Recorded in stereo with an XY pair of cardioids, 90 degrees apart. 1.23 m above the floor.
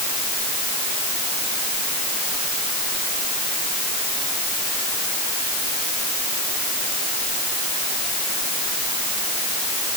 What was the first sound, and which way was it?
Only background noise.